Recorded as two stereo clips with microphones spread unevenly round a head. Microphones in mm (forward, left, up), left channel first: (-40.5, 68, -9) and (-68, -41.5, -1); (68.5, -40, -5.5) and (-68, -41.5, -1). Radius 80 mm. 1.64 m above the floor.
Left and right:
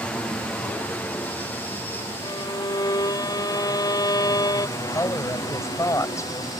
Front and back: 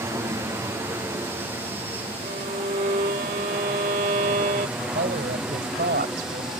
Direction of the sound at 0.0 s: 140° left.